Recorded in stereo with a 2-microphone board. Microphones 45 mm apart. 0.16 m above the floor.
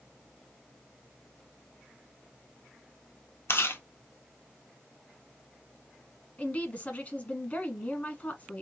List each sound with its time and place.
3.5 s chewing: 70° left (ahead or behind), 0.7 m
6.4 s a woman speaking: 35° left (ahead or behind), 1.2 m